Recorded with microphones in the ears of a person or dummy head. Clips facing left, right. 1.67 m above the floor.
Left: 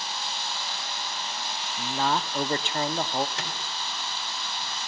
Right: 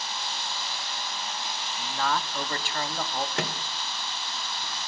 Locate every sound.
1.8 s a man speaking: 30° left (ahead or behind), 0.8 m
3.4 s a microwave: 50° right (ahead or behind), 1.1 m